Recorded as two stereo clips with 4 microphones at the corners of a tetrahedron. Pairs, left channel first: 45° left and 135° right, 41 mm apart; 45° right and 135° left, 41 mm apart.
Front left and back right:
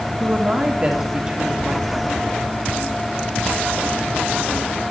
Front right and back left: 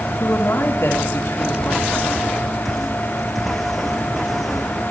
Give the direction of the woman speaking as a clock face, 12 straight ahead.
2 o'clock.